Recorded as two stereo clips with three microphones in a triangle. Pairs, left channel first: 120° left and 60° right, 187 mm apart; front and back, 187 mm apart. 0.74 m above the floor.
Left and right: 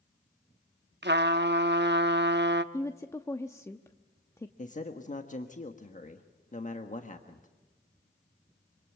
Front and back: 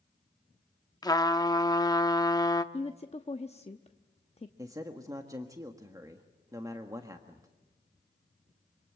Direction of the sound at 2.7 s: 45° left.